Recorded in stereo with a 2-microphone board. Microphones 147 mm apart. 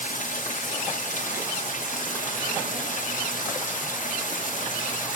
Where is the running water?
60° left (ahead or behind), 1.1 m.